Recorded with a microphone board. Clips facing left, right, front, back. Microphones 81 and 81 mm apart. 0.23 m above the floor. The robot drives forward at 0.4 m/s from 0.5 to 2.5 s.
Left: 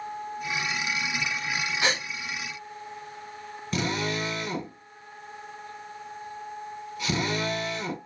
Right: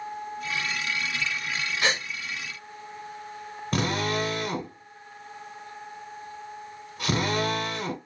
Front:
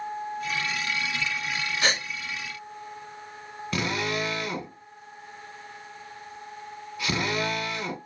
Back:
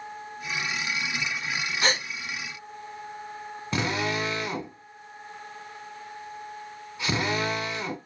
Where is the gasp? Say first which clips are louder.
Right 1 dB, back 1 dB; 150° left, 2 m.